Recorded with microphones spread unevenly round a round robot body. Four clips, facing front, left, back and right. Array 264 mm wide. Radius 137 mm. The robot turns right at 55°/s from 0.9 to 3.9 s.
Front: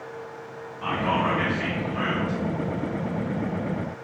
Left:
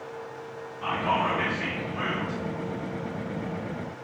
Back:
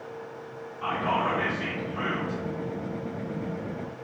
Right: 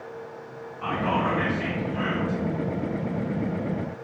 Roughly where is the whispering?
Right.